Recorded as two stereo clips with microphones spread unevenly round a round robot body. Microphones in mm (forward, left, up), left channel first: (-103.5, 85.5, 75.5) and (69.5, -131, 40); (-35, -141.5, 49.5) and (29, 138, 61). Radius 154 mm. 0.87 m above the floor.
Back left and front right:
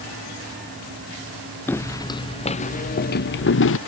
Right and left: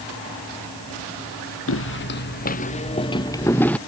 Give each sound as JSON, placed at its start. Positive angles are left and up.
{"t": 1.7, "sound": "footsteps", "azimuth_deg": -150}